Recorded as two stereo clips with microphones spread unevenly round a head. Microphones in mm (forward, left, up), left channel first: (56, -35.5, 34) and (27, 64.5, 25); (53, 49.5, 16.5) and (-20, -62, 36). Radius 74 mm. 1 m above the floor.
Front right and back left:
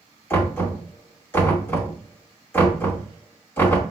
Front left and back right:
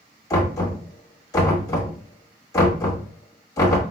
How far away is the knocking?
About 1.7 m.